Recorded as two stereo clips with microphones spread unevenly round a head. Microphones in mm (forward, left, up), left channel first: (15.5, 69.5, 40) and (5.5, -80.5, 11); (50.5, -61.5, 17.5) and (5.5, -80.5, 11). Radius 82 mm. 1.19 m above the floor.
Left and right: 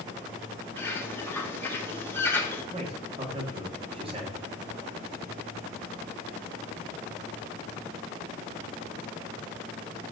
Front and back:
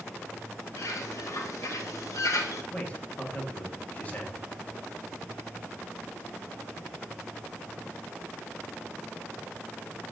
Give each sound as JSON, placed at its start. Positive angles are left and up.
{"t": 0.8, "sound": "a bird", "azimuth_deg": 5, "distance_m": 0.8}
{"t": 2.7, "sound": "a man speaking", "azimuth_deg": -40, "distance_m": 1.3}